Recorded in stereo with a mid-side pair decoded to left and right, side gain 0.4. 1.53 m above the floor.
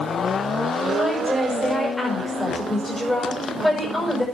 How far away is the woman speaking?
About 6.5 m.